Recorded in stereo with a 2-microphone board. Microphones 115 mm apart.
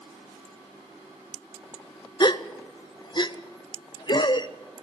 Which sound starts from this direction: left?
A gasp, at 2.2 s.